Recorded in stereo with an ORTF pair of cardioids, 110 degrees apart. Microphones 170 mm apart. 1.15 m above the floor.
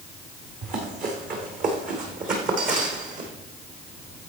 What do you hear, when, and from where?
0.6 s running footsteps: 60° right, 5 m; by 3.3 s 50° right, 3.5 m